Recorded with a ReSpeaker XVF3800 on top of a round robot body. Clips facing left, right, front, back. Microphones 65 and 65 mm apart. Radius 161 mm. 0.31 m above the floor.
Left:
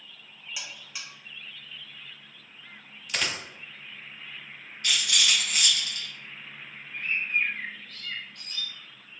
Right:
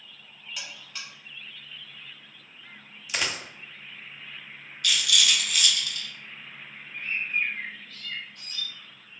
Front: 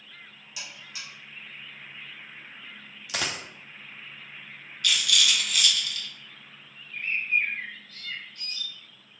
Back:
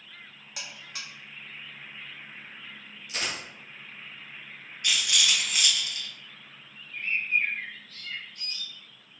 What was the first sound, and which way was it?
A buzzer, 170° left.